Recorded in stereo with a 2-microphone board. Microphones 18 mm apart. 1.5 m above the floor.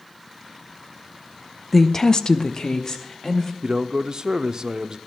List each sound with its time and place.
1.7 s a woman speaking: 5° left (ahead or behind), 0.7 m; by 3.5 s 35° left (ahead or behind), 2.5 m
3.6 s a man speaking: 45° right (ahead or behind), 0.6 m